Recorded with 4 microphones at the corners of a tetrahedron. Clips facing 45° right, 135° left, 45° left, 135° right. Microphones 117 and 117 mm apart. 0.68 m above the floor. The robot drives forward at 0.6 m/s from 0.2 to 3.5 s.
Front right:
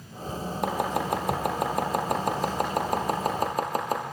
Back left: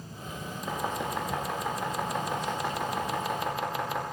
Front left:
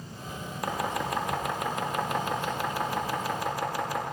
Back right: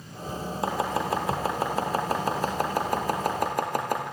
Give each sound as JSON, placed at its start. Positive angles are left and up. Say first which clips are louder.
{"t": 0.6, "sound": "chopping", "louder": "front right 5 dB, back right 3 dB", "azimuth_deg": -70, "distance_m": 4.5}